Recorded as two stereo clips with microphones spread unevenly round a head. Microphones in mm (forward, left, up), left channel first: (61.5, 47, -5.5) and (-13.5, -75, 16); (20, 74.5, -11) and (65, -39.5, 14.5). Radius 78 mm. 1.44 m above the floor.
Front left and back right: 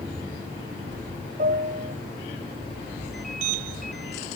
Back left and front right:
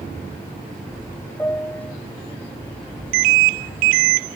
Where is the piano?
175° right.